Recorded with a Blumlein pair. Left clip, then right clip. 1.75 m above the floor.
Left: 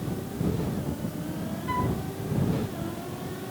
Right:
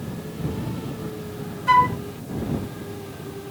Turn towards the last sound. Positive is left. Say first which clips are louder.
# right 14 dB
turn(degrees=-55)